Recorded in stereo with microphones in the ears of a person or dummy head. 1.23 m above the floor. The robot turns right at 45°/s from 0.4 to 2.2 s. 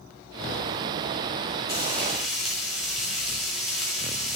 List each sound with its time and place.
1.7 s frying: 20° left (ahead or behind), 4 m; by 4.4 s centre (ahead or behind), 4 m